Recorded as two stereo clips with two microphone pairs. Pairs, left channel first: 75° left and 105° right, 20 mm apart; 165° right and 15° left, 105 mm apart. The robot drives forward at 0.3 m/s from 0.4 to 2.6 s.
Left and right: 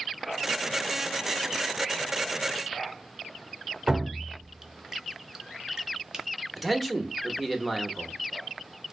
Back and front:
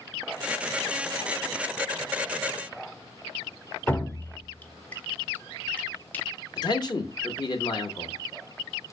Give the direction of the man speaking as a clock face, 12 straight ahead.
6 o'clock.